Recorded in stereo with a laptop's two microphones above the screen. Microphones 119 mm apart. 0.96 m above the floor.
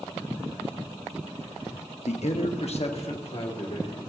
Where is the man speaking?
70° left (ahead or behind), 1.0 m; by 4.0 s 50° left (ahead or behind), 3 m.